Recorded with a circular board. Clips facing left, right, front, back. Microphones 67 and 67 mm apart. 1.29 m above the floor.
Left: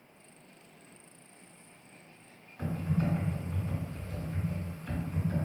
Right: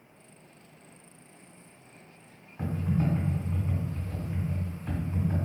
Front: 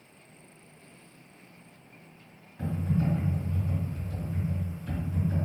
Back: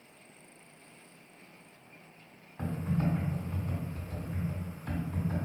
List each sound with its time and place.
2.6 s typing on a keyboard: 145° right, 1.5 m